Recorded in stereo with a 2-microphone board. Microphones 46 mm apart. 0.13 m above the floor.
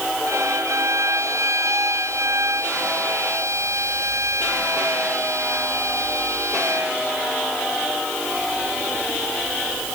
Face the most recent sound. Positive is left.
turn(degrees=-85)